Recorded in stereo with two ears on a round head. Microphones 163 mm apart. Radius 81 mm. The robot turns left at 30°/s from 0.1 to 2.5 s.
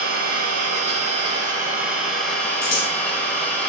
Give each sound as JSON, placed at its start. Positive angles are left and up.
{"t": 0.0, "sound": "an engine running", "azimuth_deg": -115, "distance_m": 0.8}
{"t": 2.6, "sound": "scissors", "side_deg": 60, "distance_m": 1.2}